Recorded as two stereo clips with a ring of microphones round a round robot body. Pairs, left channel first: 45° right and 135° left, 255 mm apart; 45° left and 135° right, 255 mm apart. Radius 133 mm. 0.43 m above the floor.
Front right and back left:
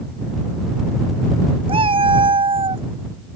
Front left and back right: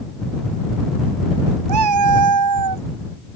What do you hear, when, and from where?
1.7 s a cat meowing: 155° right